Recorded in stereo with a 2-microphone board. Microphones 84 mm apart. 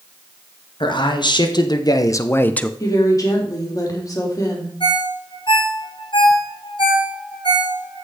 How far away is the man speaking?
About 1.8 m.